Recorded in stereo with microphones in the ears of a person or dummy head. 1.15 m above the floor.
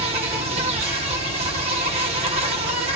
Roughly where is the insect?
Right.